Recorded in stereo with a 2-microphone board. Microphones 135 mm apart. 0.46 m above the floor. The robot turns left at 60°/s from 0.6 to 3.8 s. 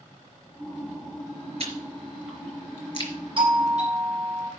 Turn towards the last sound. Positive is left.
turn(degrees=-55)  # may be behind; listen again after turning